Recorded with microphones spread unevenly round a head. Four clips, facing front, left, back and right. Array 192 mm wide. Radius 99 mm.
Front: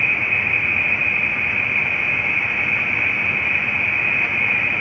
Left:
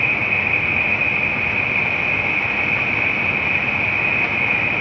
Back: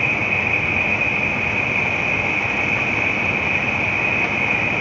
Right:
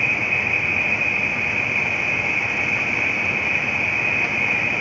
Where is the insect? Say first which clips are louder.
Left 2 dB, back 2 dB; 170° left.